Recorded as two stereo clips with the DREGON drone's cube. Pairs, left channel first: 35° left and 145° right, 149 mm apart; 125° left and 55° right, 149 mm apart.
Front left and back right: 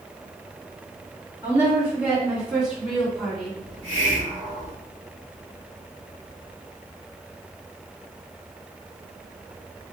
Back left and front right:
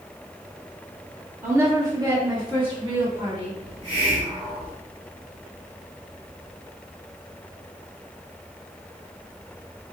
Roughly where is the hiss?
Right.